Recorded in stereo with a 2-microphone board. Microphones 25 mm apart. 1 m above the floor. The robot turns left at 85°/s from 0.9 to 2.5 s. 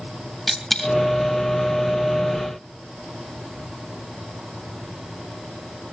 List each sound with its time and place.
0.5 s a dropped coin: 10° left (ahead or behind), 3 m; by 0.9 s 5° left (ahead or behind), 3 m